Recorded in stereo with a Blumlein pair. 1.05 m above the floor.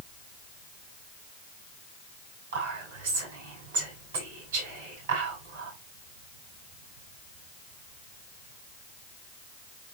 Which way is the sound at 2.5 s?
60° right.